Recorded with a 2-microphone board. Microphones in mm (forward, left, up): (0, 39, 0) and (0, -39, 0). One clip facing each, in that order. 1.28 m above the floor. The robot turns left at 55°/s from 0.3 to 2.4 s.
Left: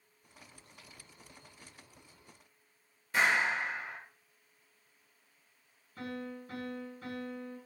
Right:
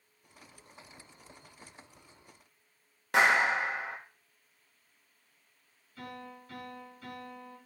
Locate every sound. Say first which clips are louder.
3.1 s a clap: right 4 dB; 75° right (ahead or behind), 1.2 m
6.0 s a piano: left 4 dB; 35° left (ahead or behind), 4.5 m